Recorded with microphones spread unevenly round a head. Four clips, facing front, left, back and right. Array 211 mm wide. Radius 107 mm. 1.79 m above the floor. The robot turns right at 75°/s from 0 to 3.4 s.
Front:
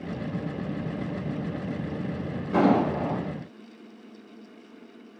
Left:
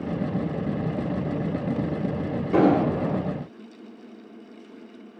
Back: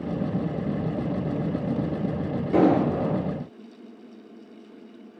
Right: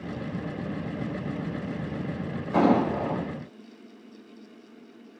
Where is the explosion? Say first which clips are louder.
Left 2 dB, back 2 dB; 135° left, 4 m; by 3.2 s 170° right, 4 m.